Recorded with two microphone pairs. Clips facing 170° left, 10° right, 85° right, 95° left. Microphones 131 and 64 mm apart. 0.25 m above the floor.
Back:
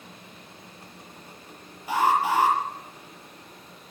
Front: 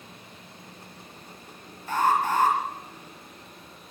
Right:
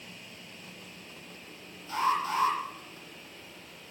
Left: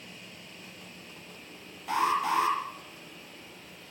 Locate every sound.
1.9 s an alarm: 90° left, 7.5 m